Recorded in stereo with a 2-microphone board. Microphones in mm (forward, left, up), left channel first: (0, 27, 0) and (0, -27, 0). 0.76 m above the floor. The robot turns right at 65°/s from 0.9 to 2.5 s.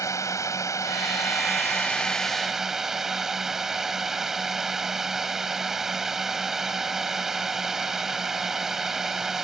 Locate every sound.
0.0 s a drone: 85° left; by 9.4 s 170° right